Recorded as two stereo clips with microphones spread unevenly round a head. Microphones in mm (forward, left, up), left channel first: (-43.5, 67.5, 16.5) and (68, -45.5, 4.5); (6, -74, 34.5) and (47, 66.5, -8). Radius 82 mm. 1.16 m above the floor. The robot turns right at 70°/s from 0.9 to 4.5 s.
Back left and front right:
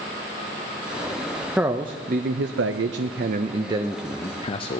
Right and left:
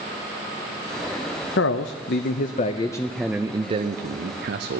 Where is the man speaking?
130° right, 0.6 m; by 4.8 s 75° left, 0.6 m.